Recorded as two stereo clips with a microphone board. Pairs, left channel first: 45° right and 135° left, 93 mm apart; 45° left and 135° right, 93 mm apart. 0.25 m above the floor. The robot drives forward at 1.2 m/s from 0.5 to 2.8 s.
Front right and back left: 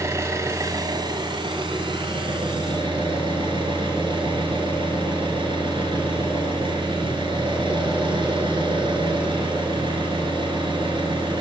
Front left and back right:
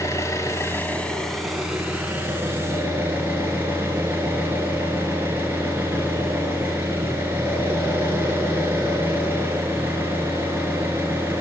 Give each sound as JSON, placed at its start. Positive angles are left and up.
{"t": 0.0, "sound": "an engine running", "azimuth_deg": 85, "distance_m": 1.4}